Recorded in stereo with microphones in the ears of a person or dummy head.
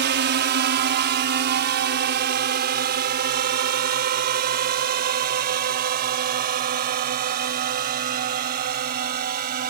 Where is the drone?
45° right (ahead or behind); by 9.7 s 40° right (ahead or behind).